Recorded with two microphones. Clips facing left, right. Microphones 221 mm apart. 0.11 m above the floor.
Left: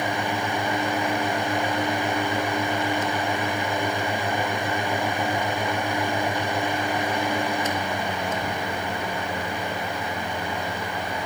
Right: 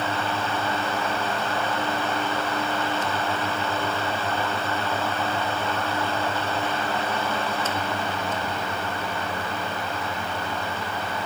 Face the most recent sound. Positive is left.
No sound to turn to.